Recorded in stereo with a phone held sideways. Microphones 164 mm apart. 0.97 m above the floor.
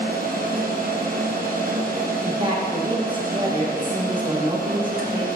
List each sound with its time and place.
0.0 s a machine running: 60° right (ahead or behind), 1.0 m
2.2 s a woman speaking: 30° right (ahead or behind), 1.1 m